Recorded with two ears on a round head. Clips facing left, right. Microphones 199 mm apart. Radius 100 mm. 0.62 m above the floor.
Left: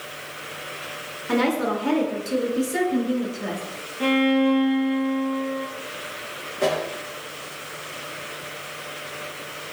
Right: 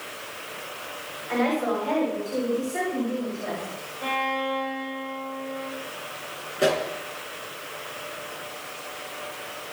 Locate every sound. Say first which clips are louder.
1.3 s a woman speaking: left 2 dB; 85° left, 8 m; by 3.6 s 80° left, 8 m
4.0 s a violin: left 12 dB; 85° left, 9.5 m
6.6 s a pop: even; 15° right (ahead or behind), 4.5 m